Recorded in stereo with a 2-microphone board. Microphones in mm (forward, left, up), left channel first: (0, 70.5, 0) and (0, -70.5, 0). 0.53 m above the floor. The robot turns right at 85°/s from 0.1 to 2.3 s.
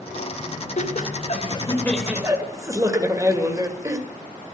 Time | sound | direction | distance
0.8 | laughter | 75° left | 2 m